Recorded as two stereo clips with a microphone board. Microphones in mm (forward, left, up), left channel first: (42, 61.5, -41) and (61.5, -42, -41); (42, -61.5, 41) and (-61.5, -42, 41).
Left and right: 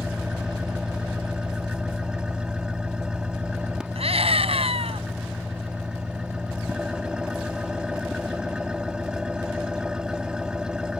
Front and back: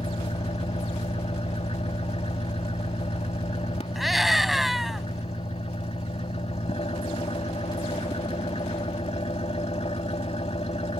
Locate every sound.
0.0 s an engine running: 5° left
4.0 s a scream: 100° right